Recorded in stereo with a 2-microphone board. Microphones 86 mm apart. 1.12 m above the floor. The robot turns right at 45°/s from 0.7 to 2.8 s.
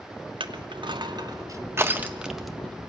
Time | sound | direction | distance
0.4 | crushing | 70° right (ahead or behind) | 1.2 m